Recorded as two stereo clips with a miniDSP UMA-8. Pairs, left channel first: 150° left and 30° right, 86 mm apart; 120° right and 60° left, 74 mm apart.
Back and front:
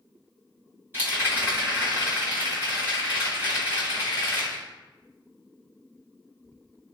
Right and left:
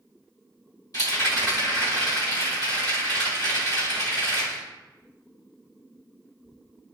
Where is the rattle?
95° right, 2.0 m.